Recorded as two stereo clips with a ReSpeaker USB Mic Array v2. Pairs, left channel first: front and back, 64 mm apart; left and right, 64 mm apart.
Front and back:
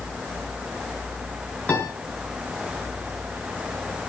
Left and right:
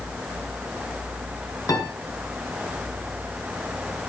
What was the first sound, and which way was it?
A piano, 65° left.